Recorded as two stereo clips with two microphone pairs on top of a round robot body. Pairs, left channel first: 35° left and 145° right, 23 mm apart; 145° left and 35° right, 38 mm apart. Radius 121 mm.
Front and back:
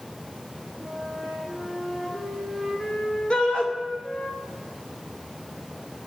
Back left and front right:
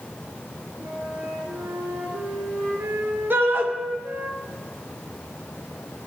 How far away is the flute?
About 4.5 m.